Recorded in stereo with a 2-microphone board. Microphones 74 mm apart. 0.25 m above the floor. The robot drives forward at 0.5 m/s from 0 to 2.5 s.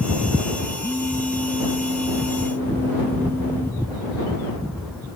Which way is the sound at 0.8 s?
35° left (ahead or behind).